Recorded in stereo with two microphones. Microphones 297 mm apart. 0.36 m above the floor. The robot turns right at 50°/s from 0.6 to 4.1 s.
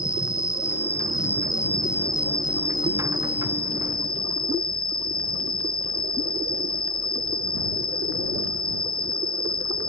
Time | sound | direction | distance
0.0 | an insect | 105° left | ?